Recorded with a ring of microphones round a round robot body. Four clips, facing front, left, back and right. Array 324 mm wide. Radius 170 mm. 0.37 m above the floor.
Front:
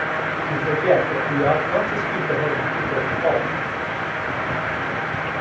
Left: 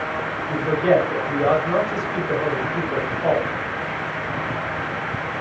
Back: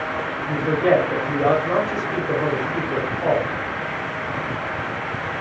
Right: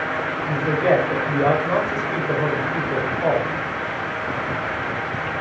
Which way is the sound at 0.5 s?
120° right.